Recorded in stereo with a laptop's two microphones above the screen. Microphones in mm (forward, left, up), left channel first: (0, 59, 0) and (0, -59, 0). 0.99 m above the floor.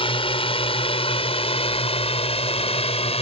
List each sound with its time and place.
0.0 s a drone: 50° left (ahead or behind); by 3.2 s 60° left (ahead or behind)